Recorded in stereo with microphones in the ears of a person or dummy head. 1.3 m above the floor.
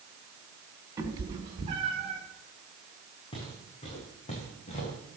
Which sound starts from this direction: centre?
A cat meowing, at 1.0 s.